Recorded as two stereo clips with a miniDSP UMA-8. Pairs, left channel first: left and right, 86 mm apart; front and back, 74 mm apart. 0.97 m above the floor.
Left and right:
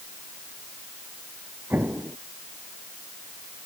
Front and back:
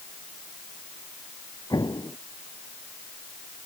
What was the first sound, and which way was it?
An explosion, 25° right.